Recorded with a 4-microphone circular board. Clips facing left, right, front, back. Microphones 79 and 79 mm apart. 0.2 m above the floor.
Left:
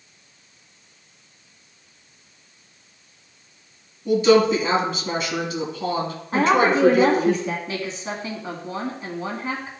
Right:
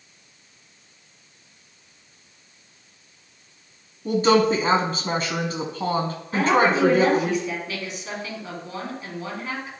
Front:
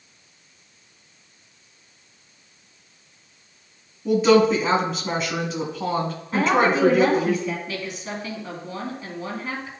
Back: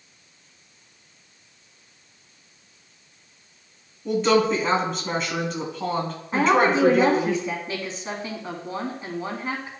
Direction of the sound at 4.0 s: 85° right.